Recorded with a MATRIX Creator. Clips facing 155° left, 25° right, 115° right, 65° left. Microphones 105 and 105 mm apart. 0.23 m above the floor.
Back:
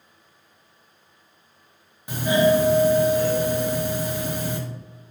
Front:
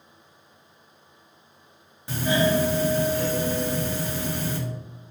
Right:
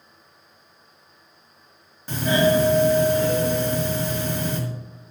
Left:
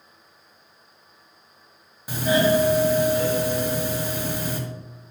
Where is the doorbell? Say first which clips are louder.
Back 4 dB, even; 125° left, 1.4 m.